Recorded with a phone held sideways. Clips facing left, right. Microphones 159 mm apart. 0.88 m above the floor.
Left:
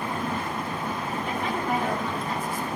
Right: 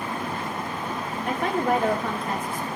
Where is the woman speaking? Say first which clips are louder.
Right 6 dB; 60° right (ahead or behind), 2.5 m.